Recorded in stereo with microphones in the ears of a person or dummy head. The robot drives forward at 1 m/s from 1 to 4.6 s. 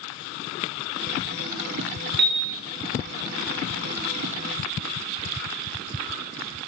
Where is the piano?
60° right (ahead or behind), 1.4 m; by 2.5 s 50° right (ahead or behind), 1.5 m.